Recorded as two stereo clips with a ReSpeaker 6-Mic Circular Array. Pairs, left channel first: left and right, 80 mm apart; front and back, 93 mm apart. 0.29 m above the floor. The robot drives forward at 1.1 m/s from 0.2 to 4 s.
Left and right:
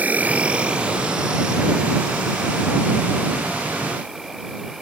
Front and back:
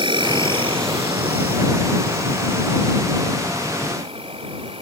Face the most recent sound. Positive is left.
turn(degrees=-175)